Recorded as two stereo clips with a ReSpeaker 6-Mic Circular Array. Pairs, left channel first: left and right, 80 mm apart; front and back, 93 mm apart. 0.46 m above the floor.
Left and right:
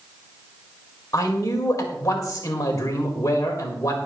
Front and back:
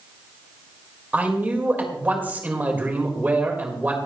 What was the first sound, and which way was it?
A man speaking, 115° left.